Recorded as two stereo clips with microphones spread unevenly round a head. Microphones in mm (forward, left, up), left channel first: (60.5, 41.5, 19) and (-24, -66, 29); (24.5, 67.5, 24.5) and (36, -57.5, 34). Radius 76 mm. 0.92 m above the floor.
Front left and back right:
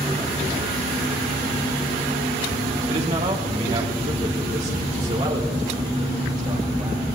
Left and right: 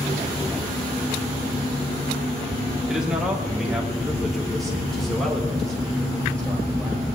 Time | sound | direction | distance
2.9 | a man speaking | 170° right | 2.5 m